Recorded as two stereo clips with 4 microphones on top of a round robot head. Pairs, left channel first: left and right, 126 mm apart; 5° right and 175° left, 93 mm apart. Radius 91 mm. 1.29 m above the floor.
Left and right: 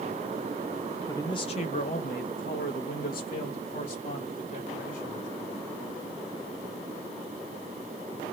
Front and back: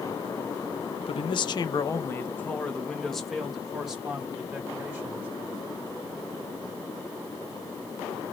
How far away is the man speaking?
About 0.7 m.